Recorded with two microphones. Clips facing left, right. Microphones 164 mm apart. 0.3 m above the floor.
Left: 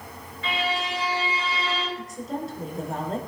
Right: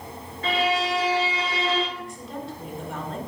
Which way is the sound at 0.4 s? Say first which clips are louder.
Right 5 dB; 45° right (ahead or behind).